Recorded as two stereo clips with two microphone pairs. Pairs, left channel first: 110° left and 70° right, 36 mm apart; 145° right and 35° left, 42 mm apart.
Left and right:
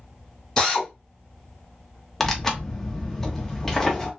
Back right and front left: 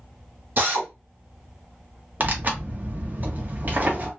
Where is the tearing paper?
40° left, 0.8 m.